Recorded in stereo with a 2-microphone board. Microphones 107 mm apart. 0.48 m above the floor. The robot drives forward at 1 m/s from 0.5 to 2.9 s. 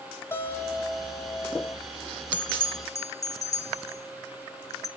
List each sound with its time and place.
0.3 s a guitar: 25° left (ahead or behind), 3 m; by 1.8 s 35° left (ahead or behind), 2 m
2.3 s a bell: 45° left (ahead or behind), 0.5 m; by 4.9 s 30° left (ahead or behind), 0.8 m